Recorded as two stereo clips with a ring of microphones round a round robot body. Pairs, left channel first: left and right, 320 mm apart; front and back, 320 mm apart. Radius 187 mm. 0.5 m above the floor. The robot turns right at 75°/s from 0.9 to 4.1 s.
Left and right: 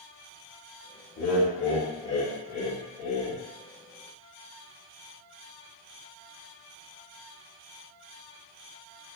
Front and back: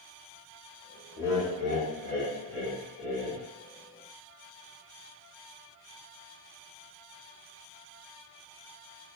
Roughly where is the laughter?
Left.